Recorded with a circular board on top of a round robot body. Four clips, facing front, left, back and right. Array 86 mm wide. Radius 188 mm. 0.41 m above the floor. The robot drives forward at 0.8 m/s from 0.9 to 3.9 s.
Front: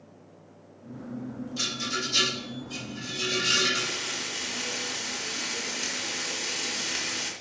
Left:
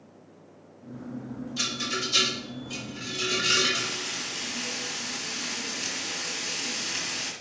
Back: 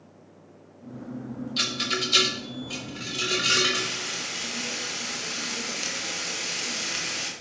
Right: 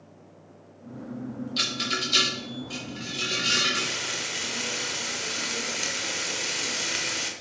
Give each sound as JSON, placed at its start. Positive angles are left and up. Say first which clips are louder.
{"t": 1.6, "sound": "a rattle", "louder": "right 1 dB, back 3 dB", "azimuth_deg": -135, "distance_m": 1.3}
{"t": 3.8, "sound": "frying", "louder": "right 2 dB, back 1 dB", "azimuth_deg": -110, "distance_m": 1.3}